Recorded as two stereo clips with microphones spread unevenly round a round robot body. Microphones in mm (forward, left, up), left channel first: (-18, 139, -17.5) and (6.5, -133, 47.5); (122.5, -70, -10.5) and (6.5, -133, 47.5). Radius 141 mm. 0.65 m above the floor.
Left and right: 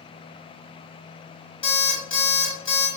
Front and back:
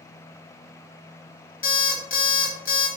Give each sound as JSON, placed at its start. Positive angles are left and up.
{"t": 1.6, "sound": "an alarm clock", "azimuth_deg": 20, "distance_m": 2.0}